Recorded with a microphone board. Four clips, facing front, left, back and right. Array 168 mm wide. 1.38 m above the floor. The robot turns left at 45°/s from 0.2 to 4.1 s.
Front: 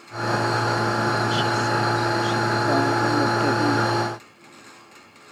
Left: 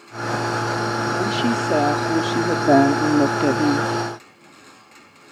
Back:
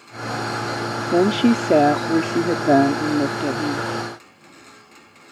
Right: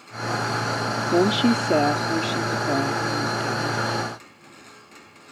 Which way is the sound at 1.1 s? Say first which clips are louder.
Right 6 dB, back 6 dB; 155° right.